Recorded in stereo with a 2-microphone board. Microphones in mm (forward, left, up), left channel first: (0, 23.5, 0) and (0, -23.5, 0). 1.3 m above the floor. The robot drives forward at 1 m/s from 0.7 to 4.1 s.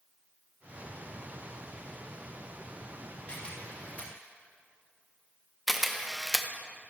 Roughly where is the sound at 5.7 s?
Centre.